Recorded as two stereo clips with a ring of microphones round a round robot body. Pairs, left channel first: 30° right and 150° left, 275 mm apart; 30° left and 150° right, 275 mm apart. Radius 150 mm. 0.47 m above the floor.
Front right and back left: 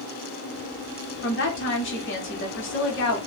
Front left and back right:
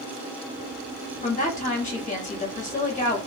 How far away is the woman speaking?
About 1.2 m.